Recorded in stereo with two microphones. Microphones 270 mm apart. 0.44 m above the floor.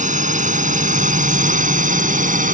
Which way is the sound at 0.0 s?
25° right (ahead or behind).